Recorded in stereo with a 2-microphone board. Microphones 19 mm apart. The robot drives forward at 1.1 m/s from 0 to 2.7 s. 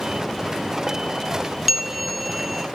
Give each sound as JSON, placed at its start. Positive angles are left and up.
{"t": 1.7, "sound": "a bell", "side_deg": -10, "distance_m": 1.0}